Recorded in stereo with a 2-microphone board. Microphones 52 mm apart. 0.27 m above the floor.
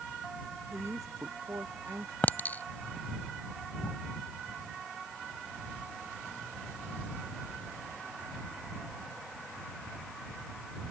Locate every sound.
0.7 s a man speaking: 85° right
2.2 s a clink: 40° left (ahead or behind)